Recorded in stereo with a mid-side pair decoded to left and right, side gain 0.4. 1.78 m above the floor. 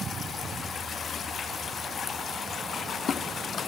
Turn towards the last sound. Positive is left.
No sound to turn to.